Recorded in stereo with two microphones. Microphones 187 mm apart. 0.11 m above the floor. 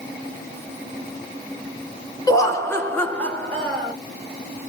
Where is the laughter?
20° left (ahead or behind), 1.1 m; by 3.9 s centre (ahead or behind), 1.4 m.